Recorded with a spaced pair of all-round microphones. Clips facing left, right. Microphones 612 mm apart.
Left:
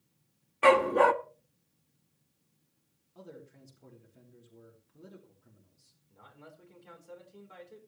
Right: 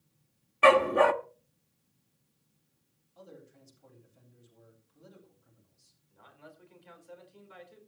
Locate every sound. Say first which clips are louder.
0.6 s a dog barking: right 1 dB; 5° right (ahead or behind), 0.7 m
3.1 s a man speaking: left 3 dB; 75° left (ahead or behind), 3.5 m
6.1 s a man speaking: left 1 dB; 65° left (ahead or behind), 4 m